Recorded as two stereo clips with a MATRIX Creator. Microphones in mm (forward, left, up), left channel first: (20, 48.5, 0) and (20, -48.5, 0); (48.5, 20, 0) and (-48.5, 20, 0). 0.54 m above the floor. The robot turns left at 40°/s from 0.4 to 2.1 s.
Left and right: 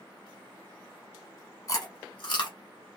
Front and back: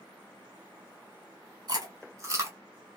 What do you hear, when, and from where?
1.7 s chewing: 140° left, 0.9 m; by 2.6 s 125° left, 0.9 m